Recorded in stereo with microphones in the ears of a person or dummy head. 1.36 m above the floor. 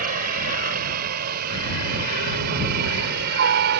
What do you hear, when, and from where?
0.0 s a helicopter: 50° right (ahead or behind); by 3.8 s 55° right (ahead or behind)